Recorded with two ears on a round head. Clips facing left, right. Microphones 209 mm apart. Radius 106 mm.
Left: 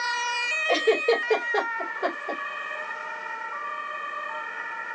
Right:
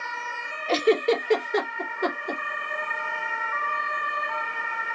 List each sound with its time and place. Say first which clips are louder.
0.7 s a giggle: right 1 dB; 35° right (ahead or behind), 2 m